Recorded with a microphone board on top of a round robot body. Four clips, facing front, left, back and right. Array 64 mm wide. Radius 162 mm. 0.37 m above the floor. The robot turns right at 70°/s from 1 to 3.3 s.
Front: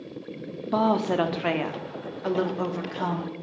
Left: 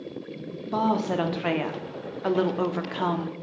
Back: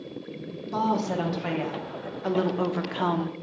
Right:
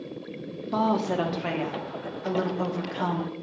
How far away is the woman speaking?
About 1.0 m.